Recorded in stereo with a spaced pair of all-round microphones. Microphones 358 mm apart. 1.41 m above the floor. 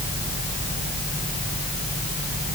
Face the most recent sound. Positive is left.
No sound to turn to.